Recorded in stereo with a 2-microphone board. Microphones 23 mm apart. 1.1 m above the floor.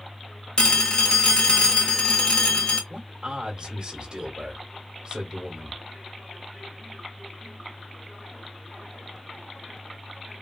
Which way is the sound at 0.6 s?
45° left (ahead or behind).